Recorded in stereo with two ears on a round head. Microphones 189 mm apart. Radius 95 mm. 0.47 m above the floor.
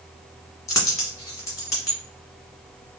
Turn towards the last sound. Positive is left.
turn(degrees=15)  # may be behind; listen again after turning